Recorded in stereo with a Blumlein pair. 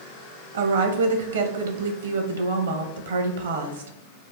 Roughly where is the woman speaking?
Ahead right.